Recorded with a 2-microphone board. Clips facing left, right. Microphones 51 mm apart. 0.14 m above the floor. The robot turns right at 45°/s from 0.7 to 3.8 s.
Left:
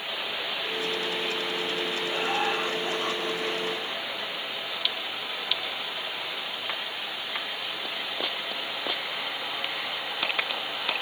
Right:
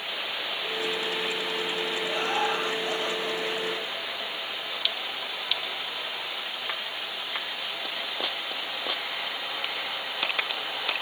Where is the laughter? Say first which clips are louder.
Even; 10° left, 3 m; by 4.3 s 90° left, 3 m.